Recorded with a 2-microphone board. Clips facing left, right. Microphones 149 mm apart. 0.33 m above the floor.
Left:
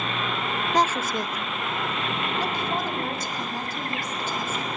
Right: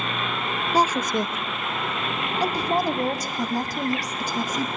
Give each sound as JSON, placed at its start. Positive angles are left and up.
{"t": 0.7, "sound": "a woman speaking", "side_deg": -10, "distance_m": 0.8}